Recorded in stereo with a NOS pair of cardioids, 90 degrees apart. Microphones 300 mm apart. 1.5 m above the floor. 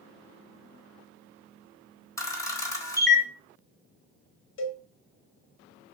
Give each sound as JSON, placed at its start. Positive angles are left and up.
{"t": 2.2, "sound": "a camera shutter", "azimuth_deg": 10, "distance_m": 0.8}
{"t": 4.6, "sound": "a cowbell", "azimuth_deg": 40, "distance_m": 0.7}